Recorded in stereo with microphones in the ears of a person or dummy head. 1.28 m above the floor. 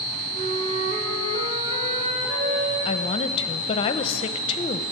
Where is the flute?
35° right (ahead or behind), 2.5 m.